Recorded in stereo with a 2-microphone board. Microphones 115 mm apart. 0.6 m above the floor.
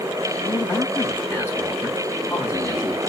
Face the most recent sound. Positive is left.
turn(degrees=20)  # may be behind; listen again after turning